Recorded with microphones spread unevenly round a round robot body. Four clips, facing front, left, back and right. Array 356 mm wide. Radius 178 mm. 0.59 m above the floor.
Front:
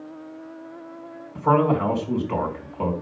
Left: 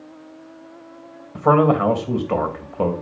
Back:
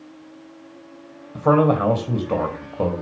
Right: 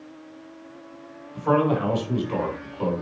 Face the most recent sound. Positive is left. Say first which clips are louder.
# left 6 dB, back 2 dB
turn(degrees=130)